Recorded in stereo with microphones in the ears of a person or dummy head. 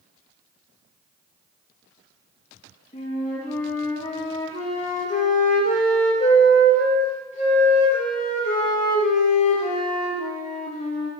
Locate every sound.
2.9 s a flute: 35° left (ahead or behind), 1.6 m